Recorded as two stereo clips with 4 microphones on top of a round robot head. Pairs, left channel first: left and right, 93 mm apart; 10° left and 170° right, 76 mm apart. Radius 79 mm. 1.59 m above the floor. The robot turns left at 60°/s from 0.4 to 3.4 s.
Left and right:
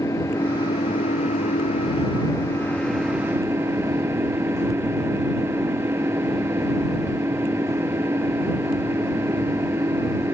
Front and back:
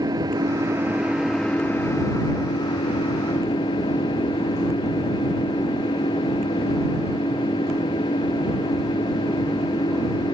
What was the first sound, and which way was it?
An engine running, 155° left.